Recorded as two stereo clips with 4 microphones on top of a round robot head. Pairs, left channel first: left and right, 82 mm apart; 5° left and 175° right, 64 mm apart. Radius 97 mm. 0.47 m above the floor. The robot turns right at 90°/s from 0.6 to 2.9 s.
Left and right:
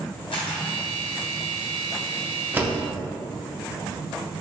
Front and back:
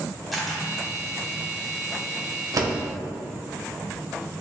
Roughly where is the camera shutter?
Left.